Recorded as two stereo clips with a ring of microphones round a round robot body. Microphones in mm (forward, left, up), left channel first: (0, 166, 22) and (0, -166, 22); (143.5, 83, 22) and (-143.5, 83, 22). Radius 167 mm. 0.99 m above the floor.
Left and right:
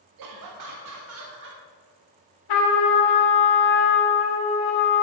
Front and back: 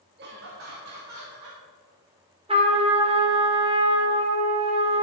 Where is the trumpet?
110° left, 2.5 m.